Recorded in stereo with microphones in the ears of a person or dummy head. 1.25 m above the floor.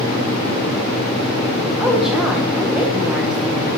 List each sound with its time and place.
1.8 s a woman speaking: centre (ahead or behind), 1.2 m